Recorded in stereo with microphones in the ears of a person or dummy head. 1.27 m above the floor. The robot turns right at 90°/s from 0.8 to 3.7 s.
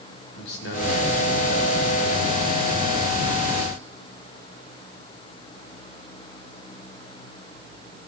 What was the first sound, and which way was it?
A man speaking, 65° left.